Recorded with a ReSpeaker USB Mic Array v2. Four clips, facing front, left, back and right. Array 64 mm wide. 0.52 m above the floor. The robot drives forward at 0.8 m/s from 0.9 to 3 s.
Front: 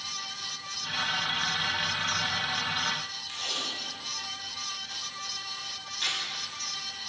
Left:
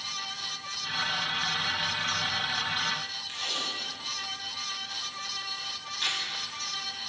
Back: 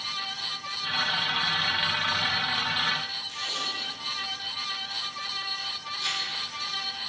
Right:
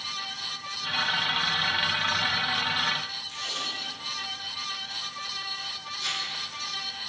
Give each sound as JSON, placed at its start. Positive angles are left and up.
{"t": 3.3, "sound": "tape being pulled", "azimuth_deg": 60, "distance_m": 4.5}